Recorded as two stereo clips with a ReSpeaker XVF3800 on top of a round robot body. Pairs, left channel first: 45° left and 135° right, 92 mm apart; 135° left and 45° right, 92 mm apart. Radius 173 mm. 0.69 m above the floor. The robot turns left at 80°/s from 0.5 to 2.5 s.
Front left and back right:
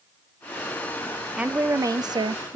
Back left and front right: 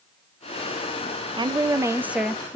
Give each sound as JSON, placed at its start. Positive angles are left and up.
{"t": 1.4, "sound": "a woman speaking", "azimuth_deg": -55, "distance_m": 0.5}